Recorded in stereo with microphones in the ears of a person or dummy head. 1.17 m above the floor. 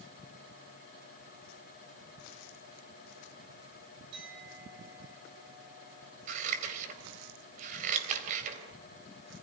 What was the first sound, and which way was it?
A clink, 60° right (ahead or behind).